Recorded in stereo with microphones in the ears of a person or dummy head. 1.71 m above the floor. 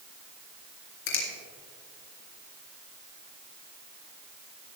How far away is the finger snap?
About 3 m.